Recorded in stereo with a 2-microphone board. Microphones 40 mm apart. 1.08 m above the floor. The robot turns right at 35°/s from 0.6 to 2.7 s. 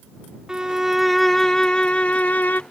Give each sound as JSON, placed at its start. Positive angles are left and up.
{"t": 0.5, "sound": "a violin", "azimuth_deg": -20}